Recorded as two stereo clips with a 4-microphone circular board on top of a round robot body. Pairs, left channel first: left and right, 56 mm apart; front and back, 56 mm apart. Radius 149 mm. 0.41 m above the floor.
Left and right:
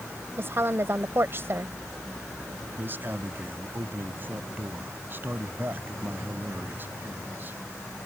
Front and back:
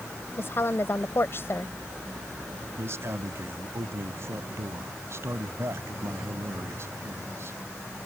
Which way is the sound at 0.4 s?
45° right.